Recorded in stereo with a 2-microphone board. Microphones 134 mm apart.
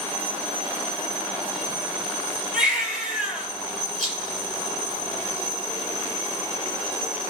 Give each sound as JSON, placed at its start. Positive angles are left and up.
{"t": 2.5, "sound": "a baby crying", "side_deg": -5, "distance_m": 3.0}
{"t": 4.0, "sound": "a rattle", "side_deg": 0, "distance_m": 5.0}